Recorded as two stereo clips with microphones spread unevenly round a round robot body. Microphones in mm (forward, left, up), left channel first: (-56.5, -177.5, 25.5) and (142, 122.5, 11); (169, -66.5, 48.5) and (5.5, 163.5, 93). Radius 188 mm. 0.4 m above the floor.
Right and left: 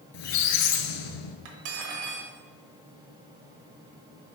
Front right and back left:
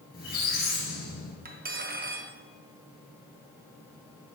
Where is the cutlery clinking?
65° left, 1.1 m.